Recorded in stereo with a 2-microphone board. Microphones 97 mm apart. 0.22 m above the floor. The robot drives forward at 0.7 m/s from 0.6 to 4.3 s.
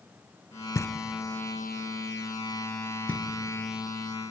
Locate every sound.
0.8 s knocking: 35° left (ahead or behind), 0.8 m; by 3.2 s 10° left (ahead or behind), 2 m